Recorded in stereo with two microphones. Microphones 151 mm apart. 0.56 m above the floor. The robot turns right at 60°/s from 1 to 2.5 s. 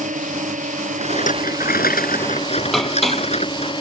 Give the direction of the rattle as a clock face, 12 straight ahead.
11 o'clock.